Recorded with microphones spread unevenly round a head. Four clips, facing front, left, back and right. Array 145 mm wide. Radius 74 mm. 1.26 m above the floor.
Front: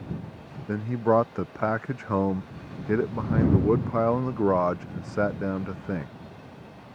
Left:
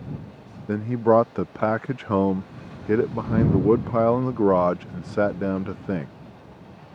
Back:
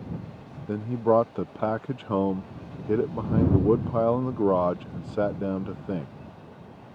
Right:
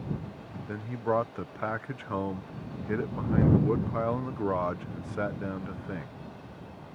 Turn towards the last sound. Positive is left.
turn(degrees=115)